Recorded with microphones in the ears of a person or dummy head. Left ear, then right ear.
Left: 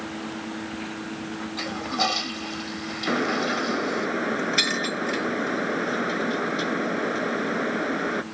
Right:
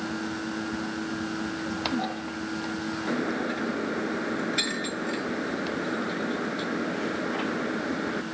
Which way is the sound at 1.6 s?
65° left (ahead or behind).